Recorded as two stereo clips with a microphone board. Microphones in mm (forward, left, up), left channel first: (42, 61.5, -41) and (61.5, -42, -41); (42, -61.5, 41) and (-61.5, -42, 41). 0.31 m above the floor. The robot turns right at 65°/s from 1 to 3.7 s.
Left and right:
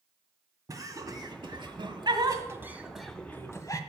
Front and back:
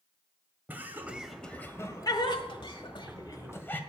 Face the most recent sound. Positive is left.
turn(degrees=55)